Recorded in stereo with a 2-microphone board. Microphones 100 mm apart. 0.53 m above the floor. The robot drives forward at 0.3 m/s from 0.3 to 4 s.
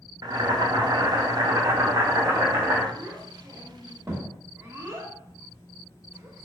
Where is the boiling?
40° right (ahead or behind), 0.6 m; by 2.9 s 25° right (ahead or behind), 0.9 m.